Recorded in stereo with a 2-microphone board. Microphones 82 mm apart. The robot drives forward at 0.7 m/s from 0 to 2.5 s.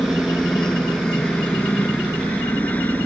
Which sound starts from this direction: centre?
A helicopter, at 0.0 s.